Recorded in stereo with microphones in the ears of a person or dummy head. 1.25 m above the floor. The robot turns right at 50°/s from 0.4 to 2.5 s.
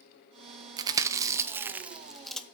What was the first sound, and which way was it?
Chewing, 25° right (ahead or behind).